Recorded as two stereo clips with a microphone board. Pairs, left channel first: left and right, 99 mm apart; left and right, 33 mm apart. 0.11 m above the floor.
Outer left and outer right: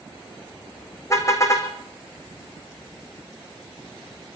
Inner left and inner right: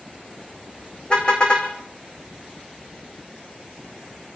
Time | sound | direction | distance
1.1 | a car horn | 30° left (ahead or behind) | 4 m